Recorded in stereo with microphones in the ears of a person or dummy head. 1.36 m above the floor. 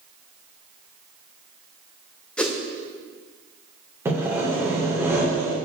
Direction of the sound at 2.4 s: Centre (ahead or behind).